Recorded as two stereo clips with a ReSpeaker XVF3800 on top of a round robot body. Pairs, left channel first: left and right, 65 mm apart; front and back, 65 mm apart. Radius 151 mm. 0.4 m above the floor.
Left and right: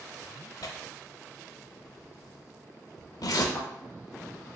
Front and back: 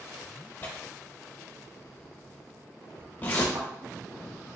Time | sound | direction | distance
0.6 | tearing paper | 65° left | 0.6 m
3.5 | a thud | 165° left | 1.3 m